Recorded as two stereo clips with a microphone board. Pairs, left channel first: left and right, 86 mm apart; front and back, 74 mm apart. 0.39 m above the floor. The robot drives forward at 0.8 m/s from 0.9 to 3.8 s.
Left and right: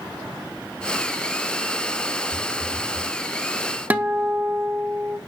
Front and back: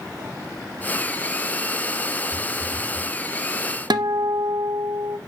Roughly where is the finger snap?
No finger snap in this recording.